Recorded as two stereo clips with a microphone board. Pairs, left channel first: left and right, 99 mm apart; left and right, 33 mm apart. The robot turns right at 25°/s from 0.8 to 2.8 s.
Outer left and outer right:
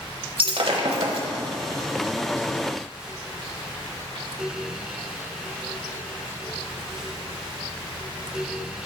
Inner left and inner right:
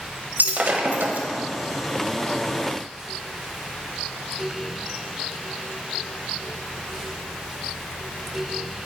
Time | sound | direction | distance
0.4 | breaking glass | 70° right (ahead or behind) | 1.0 m